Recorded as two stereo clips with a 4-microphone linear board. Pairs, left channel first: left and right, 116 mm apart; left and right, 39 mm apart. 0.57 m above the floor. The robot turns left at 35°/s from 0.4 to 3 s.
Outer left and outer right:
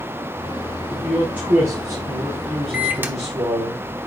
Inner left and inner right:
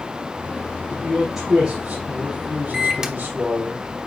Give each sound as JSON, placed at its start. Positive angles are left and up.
{"t": 0.9, "sound": "a man speaking", "azimuth_deg": 5, "distance_m": 4.0}
{"t": 2.7, "sound": "a microwave", "side_deg": -10, "distance_m": 0.9}